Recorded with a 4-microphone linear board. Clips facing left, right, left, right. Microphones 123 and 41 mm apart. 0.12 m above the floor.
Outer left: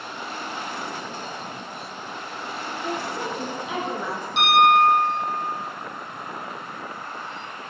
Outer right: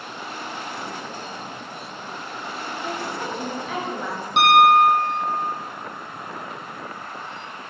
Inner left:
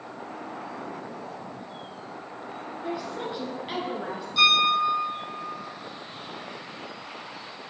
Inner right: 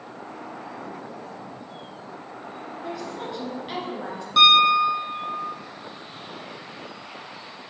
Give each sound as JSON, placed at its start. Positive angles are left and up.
{"t": 2.8, "sound": "a woman speaking", "side_deg": 15, "distance_m": 1.9}
{"t": 4.4, "sound": "a piano", "side_deg": -70, "distance_m": 1.5}